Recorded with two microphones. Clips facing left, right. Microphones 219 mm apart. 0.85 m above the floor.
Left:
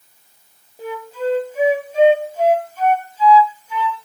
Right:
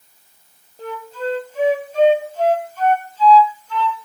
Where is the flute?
10° left (ahead or behind), 1.5 m.